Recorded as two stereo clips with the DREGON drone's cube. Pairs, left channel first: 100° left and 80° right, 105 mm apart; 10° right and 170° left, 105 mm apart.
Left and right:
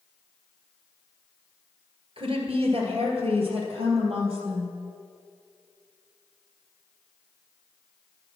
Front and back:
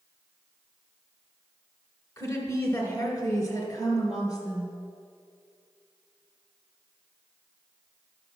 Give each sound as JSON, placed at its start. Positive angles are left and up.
{"t": 2.2, "sound": "a woman speaking", "azimuth_deg": -65, "distance_m": 2.5}